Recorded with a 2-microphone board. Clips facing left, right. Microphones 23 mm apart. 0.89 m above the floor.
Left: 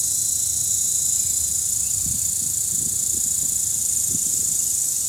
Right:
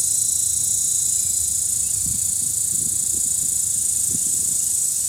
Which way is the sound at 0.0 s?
40° left (ahead or behind).